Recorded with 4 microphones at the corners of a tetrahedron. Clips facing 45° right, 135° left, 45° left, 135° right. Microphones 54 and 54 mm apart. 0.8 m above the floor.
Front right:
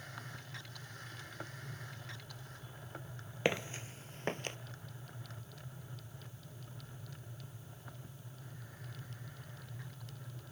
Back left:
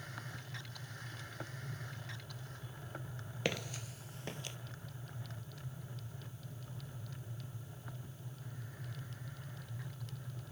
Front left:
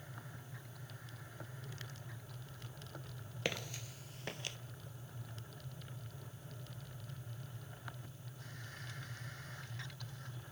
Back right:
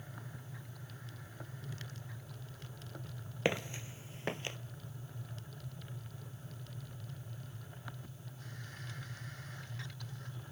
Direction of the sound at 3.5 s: 95° right.